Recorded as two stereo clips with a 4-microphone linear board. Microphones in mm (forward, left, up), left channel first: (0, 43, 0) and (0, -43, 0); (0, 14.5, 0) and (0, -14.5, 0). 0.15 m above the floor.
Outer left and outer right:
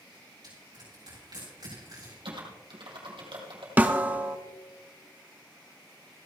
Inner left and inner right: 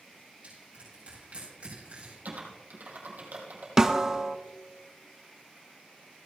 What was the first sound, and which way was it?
Crushing, 55° right (ahead or behind).